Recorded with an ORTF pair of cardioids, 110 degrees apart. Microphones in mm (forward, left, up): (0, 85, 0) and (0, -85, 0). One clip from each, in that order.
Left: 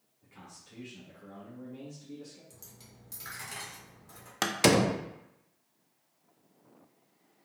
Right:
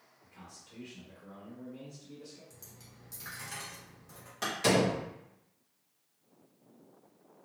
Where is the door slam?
65° left, 0.5 m.